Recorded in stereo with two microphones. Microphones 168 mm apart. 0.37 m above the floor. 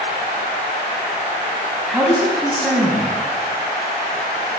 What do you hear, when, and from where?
1.9 s a man speaking: centre (ahead or behind), 3 m